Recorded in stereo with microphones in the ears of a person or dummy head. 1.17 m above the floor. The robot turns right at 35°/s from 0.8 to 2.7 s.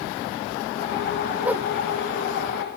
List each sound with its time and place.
1.4 s a whoosh: 10° right (ahead or behind); by 1.7 s 20° right (ahead or behind)